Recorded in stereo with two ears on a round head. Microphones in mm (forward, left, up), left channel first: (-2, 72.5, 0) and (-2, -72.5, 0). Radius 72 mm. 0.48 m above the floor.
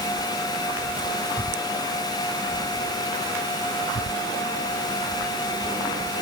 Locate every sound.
Only background noise.